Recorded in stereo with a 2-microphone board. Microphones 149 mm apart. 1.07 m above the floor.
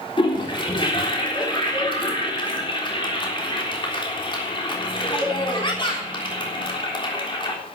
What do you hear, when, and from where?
0.2 s a toilet flushing: 35° left (ahead or behind), 3.5 m